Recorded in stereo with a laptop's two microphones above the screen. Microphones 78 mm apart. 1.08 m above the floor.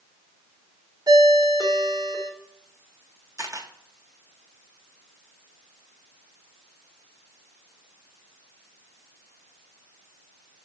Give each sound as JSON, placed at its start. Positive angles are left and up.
{"t": 1.1, "sound": "a ringtone", "side_deg": -55, "distance_m": 2.5}
{"t": 3.4, "sound": "a camera shutter", "side_deg": -45, "distance_m": 1.6}